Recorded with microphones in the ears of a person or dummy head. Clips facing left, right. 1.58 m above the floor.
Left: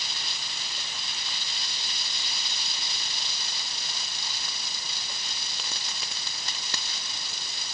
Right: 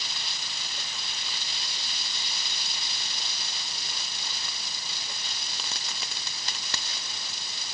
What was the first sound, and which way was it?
Only background noise.